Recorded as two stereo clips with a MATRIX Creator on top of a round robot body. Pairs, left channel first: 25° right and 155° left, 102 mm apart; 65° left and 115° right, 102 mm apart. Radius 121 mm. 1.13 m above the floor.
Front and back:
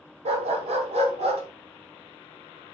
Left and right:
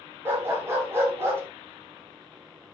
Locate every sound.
0.2 s a dog barking: straight behind, 3 m